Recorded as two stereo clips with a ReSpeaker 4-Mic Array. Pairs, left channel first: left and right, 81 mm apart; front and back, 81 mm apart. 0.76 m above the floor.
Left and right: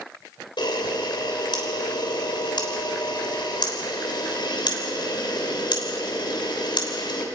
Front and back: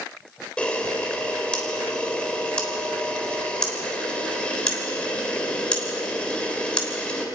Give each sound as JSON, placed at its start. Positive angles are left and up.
{"t": 0.6, "sound": "a camera shutter", "azimuth_deg": 75, "distance_m": 3.5}